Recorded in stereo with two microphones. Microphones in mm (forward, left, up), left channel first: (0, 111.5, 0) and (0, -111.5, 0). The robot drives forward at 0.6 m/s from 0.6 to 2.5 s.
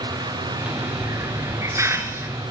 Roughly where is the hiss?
Centre.